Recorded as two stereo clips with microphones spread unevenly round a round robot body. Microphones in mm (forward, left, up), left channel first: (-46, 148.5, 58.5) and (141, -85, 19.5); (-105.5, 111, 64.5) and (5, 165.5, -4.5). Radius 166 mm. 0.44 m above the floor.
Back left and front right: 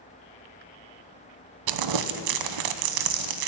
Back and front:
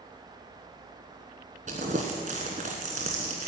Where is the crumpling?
45° right, 0.7 m.